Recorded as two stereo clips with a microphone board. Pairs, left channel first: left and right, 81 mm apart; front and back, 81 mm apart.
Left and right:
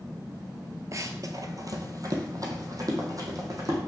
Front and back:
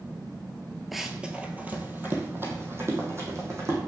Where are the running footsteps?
95° right, 0.8 m; by 3.8 s 130° right, 2.5 m.